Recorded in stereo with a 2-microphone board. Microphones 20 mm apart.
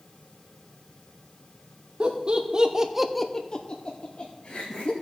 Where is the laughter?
45° right (ahead or behind), 1.7 m; by 4.9 s 80° left, 2 m.